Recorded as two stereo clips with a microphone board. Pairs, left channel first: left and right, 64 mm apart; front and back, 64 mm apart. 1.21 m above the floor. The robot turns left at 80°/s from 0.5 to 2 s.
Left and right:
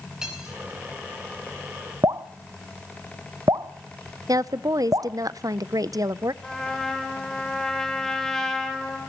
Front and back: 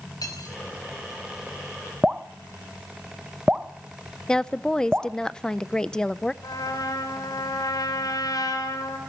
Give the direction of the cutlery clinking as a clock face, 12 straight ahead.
12 o'clock.